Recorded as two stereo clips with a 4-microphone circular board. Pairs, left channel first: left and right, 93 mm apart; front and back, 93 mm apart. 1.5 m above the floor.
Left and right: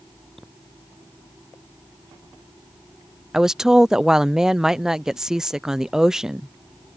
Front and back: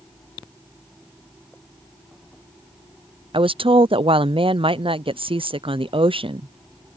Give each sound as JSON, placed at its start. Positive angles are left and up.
{"t": 3.3, "sound": "a woman speaking", "azimuth_deg": -175}